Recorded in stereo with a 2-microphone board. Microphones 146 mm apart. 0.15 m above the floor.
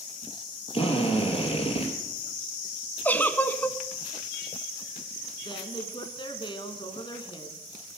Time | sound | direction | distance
0.7 | a drill | 40° left (ahead or behind) | 3 m
3.0 | a giggle | 10° left (ahead or behind) | 0.7 m
5.5 | a woman speaking | 35° left (ahead or behind) | 1.8 m